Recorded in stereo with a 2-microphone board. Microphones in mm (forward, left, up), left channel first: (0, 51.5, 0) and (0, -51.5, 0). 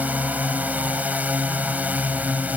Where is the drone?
15° right (ahead or behind).